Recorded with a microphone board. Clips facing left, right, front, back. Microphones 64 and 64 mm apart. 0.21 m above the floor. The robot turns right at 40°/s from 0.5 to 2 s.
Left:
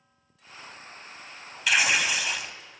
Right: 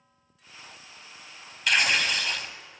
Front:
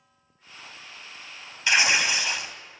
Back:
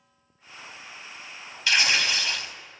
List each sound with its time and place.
1.7 s tearing paper: 10° left, 0.6 m; by 2.5 s 25° left, 0.6 m